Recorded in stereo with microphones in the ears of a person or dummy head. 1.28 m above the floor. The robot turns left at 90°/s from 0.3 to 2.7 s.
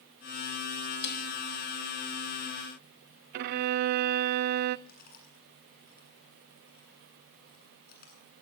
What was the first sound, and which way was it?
A snare drum, 60° left (ahead or behind).